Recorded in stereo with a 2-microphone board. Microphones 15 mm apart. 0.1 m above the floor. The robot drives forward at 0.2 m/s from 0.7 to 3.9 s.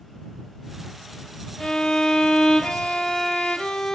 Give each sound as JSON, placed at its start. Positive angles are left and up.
{"t": 1.6, "sound": "a violin", "side_deg": 60, "distance_m": 0.7}